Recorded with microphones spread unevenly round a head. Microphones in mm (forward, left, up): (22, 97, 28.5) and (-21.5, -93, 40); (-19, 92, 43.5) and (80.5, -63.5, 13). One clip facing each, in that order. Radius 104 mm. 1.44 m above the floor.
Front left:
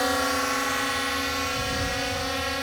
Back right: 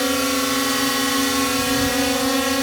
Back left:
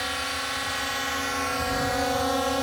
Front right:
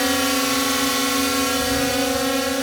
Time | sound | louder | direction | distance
0.0 | a drone | back right 6 dB, front right 14 dB | 50° right | ?